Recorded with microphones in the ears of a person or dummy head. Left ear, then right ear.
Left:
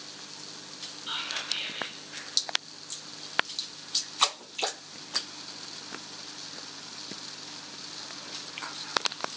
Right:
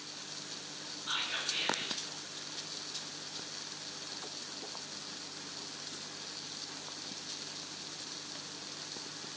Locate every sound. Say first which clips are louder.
1.1 s whispering: left 2 dB; 50° left (ahead or behind), 1.8 m